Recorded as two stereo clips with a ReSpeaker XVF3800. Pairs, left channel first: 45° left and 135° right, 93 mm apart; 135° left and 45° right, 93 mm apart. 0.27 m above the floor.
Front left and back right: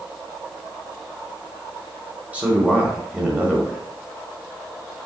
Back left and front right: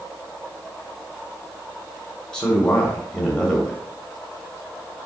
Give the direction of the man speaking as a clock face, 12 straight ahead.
5 o'clock.